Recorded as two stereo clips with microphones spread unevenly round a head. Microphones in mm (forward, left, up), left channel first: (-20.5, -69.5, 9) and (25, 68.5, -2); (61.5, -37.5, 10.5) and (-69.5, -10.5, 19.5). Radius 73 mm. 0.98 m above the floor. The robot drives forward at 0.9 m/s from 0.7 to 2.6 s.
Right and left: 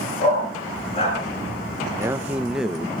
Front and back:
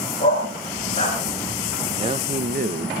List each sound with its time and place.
0.2 s a dog barking: 55° right, 6.5 m; by 1.2 s 60° right, 6 m
2.0 s a man speaking: 130° left, 0.9 m; by 3.0 s 155° left, 1.2 m